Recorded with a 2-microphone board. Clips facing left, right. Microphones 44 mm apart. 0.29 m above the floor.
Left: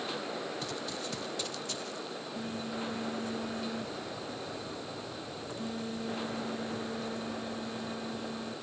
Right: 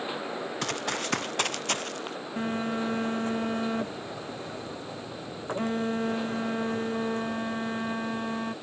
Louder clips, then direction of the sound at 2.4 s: Right 9 dB; 50° right (ahead or behind).